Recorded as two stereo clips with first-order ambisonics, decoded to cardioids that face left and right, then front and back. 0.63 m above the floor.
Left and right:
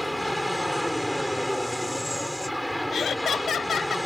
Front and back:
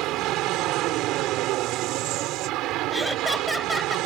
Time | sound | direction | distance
0.0 | an aircraft | straight behind | ?
2.9 | laughter | 95° left | ?